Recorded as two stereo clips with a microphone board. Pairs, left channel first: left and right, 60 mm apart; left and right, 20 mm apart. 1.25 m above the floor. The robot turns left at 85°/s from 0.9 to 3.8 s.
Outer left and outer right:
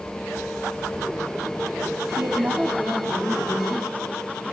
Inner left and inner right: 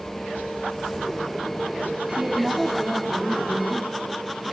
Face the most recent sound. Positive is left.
turn(degrees=100)